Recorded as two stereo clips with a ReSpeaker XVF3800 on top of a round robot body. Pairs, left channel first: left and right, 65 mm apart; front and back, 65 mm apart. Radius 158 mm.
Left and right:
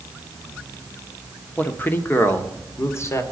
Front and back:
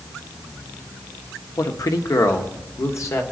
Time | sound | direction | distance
1.6 | a man speaking | 25° left | 1.5 m